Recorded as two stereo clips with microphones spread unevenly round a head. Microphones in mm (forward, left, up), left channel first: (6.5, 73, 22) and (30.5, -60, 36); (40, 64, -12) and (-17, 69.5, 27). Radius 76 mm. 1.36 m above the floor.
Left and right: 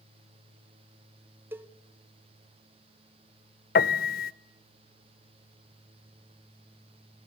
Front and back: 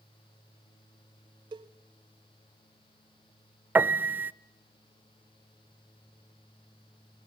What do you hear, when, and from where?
1.5 s a cowbell: 155° right, 0.8 m
3.8 s a piano: 130° left, 0.6 m